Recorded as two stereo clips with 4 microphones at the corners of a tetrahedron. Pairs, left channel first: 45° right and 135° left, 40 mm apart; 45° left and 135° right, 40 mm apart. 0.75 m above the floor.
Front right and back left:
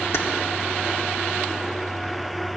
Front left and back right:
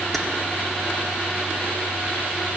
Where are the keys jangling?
40° right, 1.0 m.